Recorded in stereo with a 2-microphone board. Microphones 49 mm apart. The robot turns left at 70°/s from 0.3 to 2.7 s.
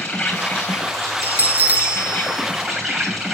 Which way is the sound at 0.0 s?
165° left.